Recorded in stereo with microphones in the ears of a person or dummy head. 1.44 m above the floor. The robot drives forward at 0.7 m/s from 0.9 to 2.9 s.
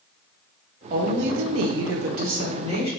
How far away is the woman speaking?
About 0.7 m.